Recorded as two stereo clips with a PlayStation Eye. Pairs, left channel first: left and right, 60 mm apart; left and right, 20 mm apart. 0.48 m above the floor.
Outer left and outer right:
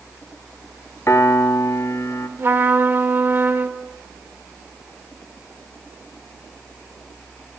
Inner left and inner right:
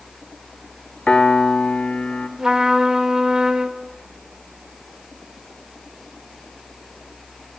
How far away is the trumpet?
About 0.7 m.